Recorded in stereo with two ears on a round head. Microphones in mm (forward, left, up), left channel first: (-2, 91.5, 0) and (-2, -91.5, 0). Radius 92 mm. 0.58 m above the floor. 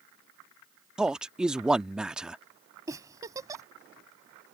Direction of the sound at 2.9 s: 15° right (ahead or behind).